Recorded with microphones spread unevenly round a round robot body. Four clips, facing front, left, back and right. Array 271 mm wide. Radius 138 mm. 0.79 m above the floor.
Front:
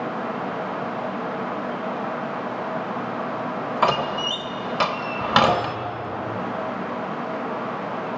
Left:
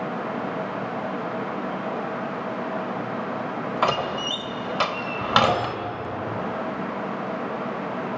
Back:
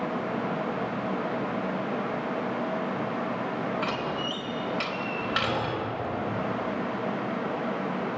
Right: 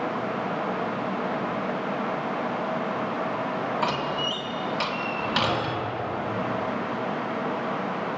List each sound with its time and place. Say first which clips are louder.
3.8 s a door slam: left 3 dB, front 8 dB; 20° left, 2 m